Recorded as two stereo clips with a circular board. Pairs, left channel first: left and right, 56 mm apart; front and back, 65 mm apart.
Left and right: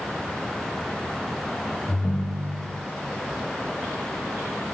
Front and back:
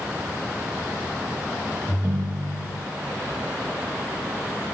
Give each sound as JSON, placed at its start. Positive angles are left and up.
{"t": 1.9, "sound": "a ringtone", "azimuth_deg": 130, "distance_m": 0.8}